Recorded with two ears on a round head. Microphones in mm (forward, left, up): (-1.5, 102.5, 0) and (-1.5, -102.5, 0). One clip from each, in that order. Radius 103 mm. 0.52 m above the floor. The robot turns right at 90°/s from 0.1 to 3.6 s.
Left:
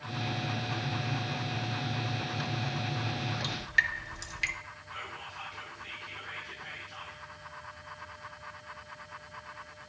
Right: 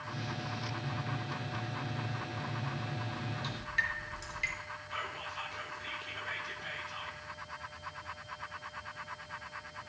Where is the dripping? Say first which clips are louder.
Left 6 dB; 45° left (ahead or behind), 0.9 m; by 4.5 s 35° left (ahead or behind), 0.9 m.